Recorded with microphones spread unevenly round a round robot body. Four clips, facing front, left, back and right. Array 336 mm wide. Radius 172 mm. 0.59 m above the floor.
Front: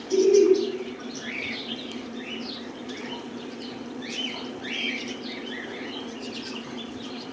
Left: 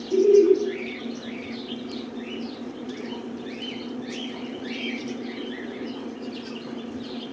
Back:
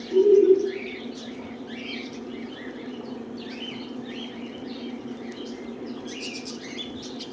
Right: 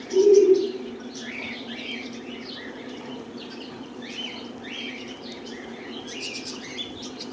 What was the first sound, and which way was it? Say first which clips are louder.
Laughter: right 1 dB, back 1 dB; 75° left.